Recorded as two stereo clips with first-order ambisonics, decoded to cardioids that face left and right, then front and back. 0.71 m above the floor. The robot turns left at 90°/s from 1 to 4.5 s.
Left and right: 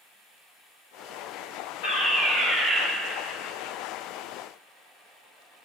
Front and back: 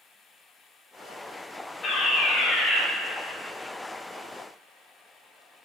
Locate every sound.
1.8 s a fire alarm: 60° left, 2.5 m; by 2.8 s 30° right, 2.5 m